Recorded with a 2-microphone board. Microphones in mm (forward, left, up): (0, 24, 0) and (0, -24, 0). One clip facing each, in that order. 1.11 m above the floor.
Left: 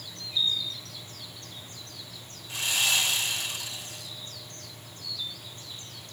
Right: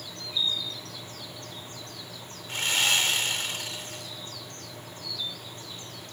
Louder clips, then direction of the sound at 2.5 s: Right 2 dB; 50° right (ahead or behind).